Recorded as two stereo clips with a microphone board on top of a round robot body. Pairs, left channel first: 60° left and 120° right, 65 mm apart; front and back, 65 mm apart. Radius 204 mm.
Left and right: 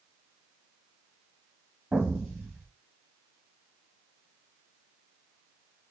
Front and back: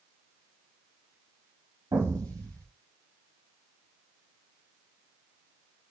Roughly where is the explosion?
Behind.